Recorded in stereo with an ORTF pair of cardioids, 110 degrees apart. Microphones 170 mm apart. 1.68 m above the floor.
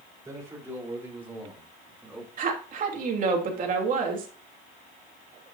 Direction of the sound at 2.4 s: 55° right.